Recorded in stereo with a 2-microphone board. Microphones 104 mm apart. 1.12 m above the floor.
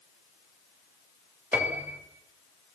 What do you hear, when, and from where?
1.5 s a piano: 15° right (ahead or behind), 2.5 m